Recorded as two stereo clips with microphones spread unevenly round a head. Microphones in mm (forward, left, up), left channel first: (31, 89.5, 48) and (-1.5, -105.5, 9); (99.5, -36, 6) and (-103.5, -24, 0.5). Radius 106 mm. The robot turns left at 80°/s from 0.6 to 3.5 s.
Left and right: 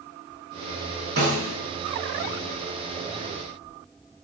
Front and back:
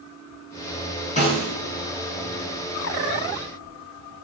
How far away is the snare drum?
About 5.5 m.